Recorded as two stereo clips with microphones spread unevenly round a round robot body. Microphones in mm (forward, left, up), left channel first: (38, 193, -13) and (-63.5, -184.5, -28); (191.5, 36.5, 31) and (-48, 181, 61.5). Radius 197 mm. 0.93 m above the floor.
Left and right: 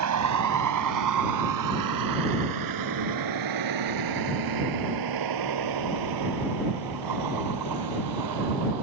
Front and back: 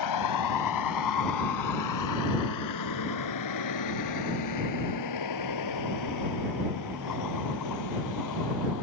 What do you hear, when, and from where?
0.0 s a vehicle: 55° right; by 8.8 s 70° right